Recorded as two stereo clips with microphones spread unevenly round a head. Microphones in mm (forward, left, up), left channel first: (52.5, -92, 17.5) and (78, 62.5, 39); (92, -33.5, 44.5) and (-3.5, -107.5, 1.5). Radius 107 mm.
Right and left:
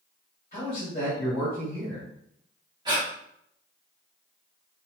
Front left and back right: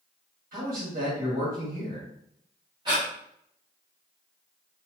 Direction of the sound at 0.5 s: 165° right.